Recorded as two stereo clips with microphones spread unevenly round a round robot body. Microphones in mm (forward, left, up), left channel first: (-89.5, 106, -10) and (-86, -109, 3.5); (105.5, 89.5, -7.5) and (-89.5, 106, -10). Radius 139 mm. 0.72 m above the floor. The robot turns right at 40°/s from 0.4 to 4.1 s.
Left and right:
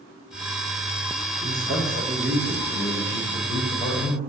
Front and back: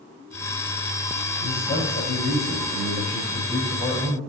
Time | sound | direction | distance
1.4 | a man speaking | 70° right | 4.5 m